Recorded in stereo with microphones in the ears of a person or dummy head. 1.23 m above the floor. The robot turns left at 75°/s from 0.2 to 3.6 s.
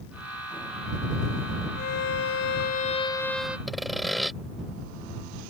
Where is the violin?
130° left; by 3.6 s 10° right.